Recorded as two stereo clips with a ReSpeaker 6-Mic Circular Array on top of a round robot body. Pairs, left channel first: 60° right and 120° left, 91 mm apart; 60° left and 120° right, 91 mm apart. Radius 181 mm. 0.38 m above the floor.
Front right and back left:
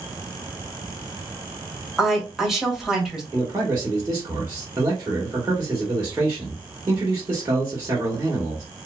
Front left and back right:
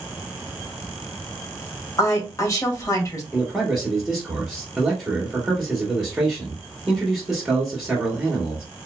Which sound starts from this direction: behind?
A man speaking, at 3.3 s.